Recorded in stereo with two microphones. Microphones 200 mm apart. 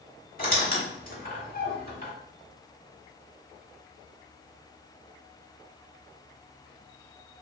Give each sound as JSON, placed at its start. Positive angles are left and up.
{"t": 0.4, "sound": "a squeak", "side_deg": 45, "distance_m": 0.9}